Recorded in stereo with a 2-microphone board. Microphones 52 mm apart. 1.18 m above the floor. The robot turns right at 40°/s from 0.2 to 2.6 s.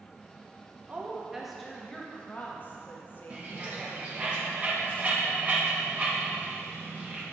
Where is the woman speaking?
30° right, 1.2 m; by 4.3 s 40° left, 1.2 m.